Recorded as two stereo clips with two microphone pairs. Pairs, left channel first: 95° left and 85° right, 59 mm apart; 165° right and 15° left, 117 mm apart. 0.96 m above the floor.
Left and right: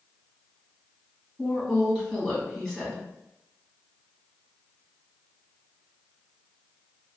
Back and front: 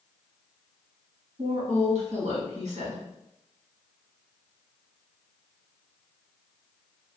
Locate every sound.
1.4 s a woman speaking: 15° left, 1.7 m